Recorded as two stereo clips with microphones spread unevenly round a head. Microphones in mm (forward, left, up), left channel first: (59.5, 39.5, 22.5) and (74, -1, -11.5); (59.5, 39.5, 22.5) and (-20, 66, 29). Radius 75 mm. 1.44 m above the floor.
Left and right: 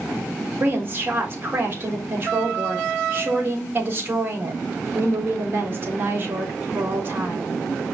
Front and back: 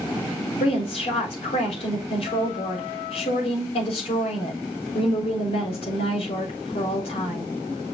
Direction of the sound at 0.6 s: 35° right.